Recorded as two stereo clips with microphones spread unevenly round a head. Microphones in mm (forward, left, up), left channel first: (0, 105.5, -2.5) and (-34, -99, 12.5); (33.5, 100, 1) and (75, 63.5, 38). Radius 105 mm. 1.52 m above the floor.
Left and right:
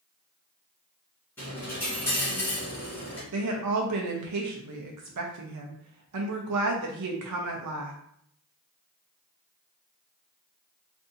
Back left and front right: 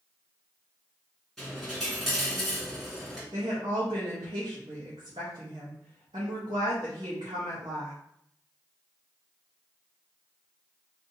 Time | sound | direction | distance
1.4 | a dropped coin | straight ahead | 1.8 m
3.3 | a woman speaking | 90° right | 0.6 m